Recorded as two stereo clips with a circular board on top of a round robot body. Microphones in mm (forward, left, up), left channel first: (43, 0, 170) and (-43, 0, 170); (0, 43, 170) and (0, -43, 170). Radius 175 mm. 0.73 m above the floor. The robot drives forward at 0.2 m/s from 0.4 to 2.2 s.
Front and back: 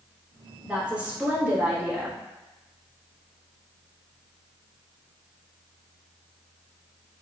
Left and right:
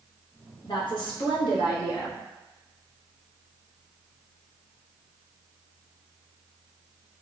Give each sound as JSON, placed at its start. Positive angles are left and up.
{"t": 0.6, "sound": "a woman speaking", "azimuth_deg": 100, "distance_m": 1.3}